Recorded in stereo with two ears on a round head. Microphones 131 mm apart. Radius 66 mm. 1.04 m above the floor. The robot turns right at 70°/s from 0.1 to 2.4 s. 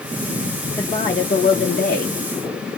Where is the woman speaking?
10° left, 0.9 m; by 2.1 s 105° left, 0.9 m.